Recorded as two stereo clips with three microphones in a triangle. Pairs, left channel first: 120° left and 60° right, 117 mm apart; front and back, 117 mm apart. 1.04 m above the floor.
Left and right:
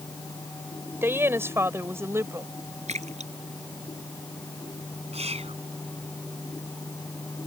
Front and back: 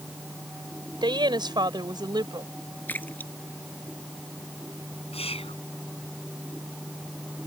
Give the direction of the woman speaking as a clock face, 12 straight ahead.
4 o'clock.